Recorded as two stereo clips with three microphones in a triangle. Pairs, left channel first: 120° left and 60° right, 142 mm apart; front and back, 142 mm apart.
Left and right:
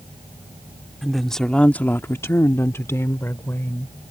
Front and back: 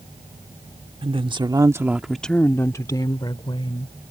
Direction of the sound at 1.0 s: 150° right.